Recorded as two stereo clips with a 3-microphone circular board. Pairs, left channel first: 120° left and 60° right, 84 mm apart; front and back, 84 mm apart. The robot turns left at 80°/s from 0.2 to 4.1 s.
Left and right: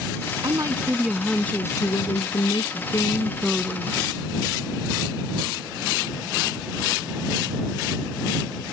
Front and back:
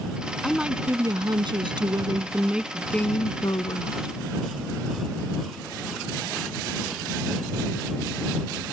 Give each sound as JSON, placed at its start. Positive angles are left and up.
{"t": 0.4, "sound": "a woman speaking", "azimuth_deg": -85}